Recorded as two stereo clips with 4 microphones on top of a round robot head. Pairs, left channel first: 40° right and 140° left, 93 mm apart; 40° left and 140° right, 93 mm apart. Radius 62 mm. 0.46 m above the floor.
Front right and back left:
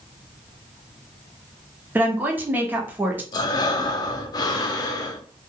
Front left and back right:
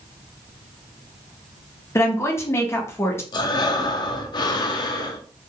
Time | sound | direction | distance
1.9 | a woman speaking | 85° left | 0.9 m
3.3 | breathing | 5° left | 0.5 m